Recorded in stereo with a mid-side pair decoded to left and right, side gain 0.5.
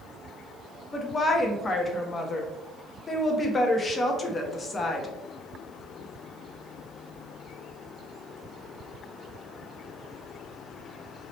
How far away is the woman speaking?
About 1.1 m.